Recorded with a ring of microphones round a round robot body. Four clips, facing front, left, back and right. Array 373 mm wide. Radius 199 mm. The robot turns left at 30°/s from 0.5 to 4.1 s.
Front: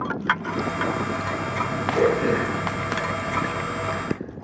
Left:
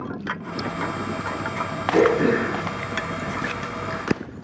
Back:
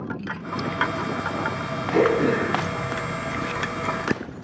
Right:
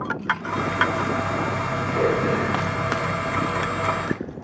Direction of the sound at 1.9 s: 115° left.